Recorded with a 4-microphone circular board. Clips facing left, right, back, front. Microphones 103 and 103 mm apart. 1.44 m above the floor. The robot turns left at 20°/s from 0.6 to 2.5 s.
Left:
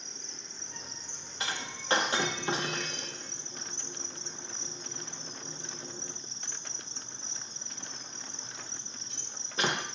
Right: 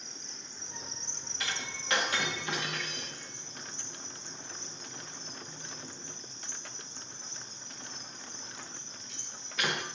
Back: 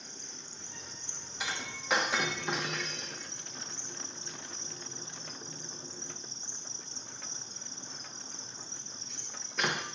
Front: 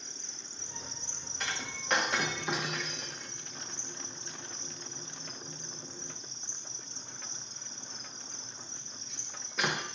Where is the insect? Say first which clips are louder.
Left 1 dB, back 1 dB; straight behind, 1.0 m; by 9.9 s 145° left, 1.0 m.